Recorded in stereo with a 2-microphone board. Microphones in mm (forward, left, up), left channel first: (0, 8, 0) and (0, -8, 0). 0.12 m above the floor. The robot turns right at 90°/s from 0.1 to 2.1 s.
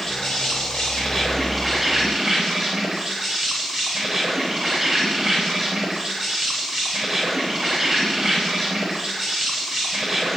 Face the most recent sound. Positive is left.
turn(degrees=-140)